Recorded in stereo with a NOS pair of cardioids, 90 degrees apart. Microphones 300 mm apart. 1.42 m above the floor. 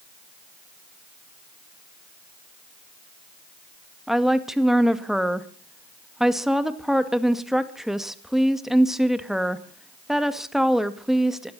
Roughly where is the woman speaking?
Ahead.